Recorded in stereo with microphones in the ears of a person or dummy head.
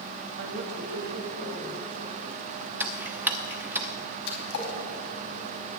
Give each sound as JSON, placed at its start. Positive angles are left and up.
{"t": 0.4, "sound": "a woman speaking", "side_deg": -50, "distance_m": 1.7}
{"t": 2.8, "sound": "ticking", "side_deg": -10, "distance_m": 1.0}
{"t": 4.3, "sound": "a splash", "side_deg": 65, "distance_m": 4.0}